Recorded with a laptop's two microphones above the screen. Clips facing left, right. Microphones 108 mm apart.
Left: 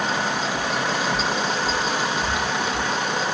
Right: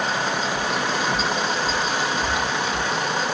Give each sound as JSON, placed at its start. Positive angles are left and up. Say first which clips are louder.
{"t": 0.6, "sound": "footsteps", "louder": "even", "side_deg": -20, "distance_m": 1.4}